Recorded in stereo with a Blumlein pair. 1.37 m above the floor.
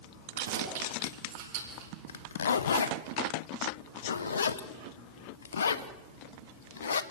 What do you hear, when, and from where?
0.3 s keys jangling: 60° right, 8 m; by 1.9 s 45° right, 8 m
2.1 s a zipper: 70° left, 1.1 m